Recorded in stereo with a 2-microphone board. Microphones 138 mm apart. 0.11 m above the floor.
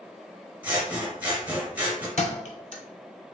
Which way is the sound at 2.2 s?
60° left (ahead or behind).